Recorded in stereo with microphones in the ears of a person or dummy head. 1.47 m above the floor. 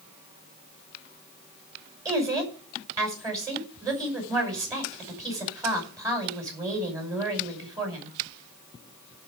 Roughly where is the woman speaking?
Centre.